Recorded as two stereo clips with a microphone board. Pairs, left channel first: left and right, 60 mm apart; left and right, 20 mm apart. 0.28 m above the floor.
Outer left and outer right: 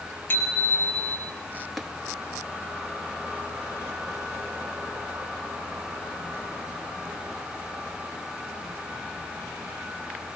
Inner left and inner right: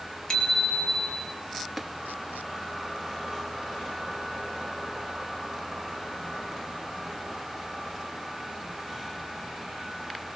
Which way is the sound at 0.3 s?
35° left (ahead or behind).